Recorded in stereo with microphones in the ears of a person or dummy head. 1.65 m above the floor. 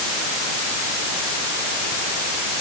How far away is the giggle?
I don't hear a giggle.